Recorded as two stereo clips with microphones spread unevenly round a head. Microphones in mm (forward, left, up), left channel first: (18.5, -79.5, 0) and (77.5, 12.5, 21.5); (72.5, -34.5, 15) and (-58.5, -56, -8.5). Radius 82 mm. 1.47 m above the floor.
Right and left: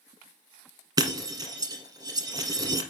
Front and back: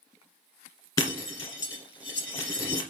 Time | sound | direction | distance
1.0 | breaking glass | 50° left | 1.9 m